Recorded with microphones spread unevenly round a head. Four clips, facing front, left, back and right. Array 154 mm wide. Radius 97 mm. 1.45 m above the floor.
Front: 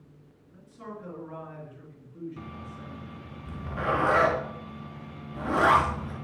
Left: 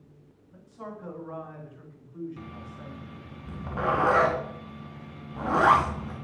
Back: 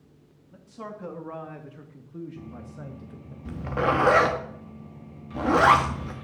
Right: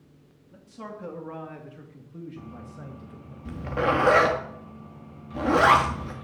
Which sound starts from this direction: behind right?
A man speaking, at 0.5 s.